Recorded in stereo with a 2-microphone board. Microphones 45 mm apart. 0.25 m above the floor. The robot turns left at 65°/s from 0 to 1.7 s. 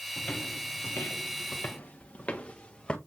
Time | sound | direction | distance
0.2 | footsteps | 10° left (ahead or behind) | 1.4 m